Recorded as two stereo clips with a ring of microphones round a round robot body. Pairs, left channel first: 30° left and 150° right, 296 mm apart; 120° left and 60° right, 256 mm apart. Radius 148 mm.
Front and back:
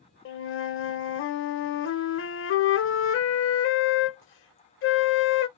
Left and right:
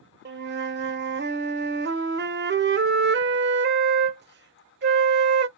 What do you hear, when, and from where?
0.2 s a flute: 15° right, 0.7 m